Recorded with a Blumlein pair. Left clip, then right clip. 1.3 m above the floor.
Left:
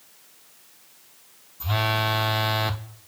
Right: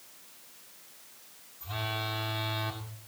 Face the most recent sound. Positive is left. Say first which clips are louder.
# left 10 dB
turn(degrees=45)